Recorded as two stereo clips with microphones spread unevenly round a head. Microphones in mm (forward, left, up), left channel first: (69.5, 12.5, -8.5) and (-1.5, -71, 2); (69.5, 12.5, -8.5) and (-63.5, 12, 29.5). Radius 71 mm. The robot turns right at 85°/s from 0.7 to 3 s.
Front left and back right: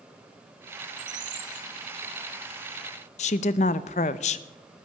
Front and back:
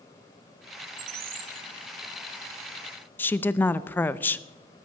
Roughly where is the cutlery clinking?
I don't hear cutlery clinking.